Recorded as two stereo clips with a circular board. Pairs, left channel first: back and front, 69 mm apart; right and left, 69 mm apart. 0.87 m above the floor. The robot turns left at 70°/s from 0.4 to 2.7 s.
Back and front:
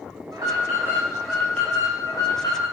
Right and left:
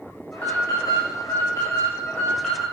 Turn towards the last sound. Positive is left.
turn(degrees=170)